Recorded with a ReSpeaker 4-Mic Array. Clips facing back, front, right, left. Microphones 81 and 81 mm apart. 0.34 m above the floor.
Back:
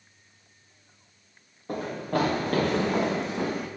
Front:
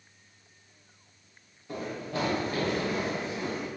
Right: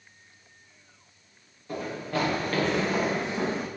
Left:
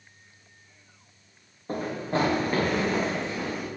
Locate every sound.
1.7 s running footsteps: 140° left, 2.5 m; by 3.7 s 150° right, 1.6 m